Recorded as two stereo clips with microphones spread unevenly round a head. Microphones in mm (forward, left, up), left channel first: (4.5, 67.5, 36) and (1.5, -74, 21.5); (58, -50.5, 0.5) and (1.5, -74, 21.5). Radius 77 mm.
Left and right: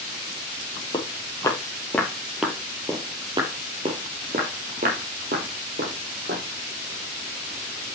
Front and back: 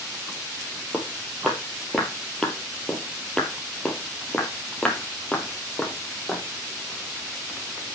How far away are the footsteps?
About 2 m.